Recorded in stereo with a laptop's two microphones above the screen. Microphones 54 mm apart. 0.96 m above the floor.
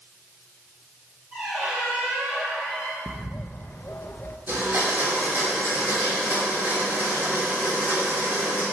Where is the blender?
45° right (ahead or behind), 3 m.